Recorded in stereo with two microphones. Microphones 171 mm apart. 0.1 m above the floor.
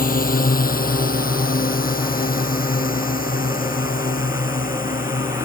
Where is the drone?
60° left (ahead or behind); by 5.5 s 55° left (ahead or behind).